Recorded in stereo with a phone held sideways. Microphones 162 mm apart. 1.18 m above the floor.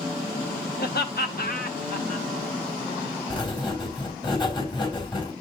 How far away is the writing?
About 4.5 m.